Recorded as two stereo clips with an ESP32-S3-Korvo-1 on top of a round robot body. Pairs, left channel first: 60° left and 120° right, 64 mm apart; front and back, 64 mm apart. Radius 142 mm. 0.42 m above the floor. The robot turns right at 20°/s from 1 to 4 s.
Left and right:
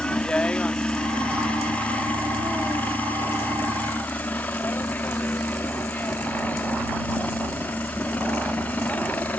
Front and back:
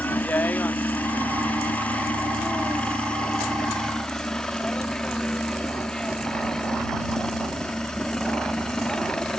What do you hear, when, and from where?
0.0 s a helicopter: 5° left; by 9.4 s 65° left